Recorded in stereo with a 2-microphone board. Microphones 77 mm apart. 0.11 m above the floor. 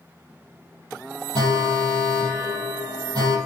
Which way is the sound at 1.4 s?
60° right (ahead or behind).